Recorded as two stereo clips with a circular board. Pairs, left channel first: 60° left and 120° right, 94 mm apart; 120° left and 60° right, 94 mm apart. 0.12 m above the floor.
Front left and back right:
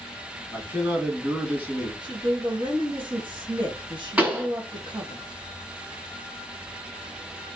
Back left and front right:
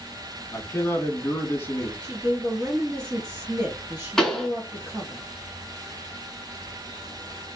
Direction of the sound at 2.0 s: 120° right.